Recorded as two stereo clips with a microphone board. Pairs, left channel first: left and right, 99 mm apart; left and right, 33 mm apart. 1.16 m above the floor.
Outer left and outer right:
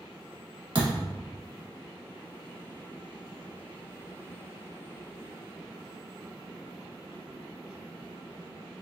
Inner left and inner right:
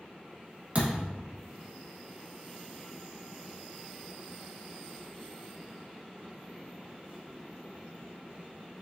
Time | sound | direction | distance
0.8 | a thud | 50° right (ahead or behind) | 1.3 m